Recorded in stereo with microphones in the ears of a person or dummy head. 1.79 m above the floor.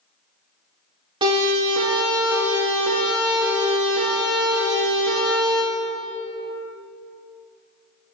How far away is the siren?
About 4.5 m.